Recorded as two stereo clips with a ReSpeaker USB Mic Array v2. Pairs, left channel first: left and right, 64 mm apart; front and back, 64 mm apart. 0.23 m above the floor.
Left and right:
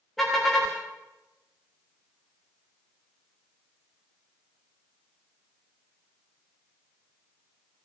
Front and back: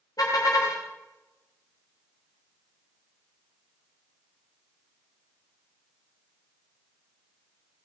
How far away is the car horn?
About 9.5 m.